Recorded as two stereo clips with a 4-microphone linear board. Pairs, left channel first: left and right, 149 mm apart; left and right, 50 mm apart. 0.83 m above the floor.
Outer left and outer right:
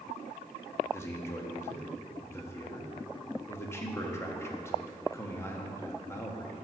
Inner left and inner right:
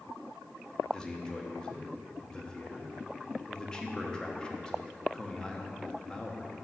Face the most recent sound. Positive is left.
turn(degrees=20)  # may be behind; listen again after turning